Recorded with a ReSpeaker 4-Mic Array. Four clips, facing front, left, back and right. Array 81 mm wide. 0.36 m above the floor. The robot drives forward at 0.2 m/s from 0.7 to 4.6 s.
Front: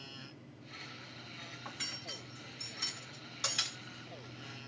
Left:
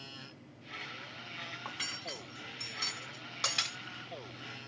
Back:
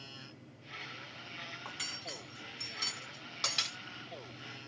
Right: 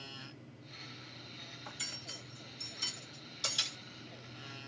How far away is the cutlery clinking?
About 1.6 m.